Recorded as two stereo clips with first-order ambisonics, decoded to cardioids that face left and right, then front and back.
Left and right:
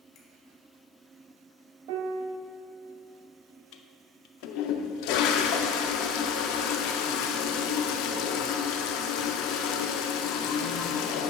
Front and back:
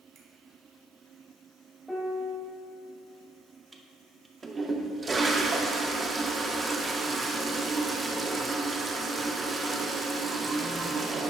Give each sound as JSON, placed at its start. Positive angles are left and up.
{"t": 0.1, "sound": "a finger snap", "azimuth_deg": 135, "distance_m": 1.9}
{"t": 1.9, "sound": "a piano", "azimuth_deg": -85, "distance_m": 0.7}
{"t": 3.7, "sound": "a toilet flushing", "azimuth_deg": 105, "distance_m": 0.5}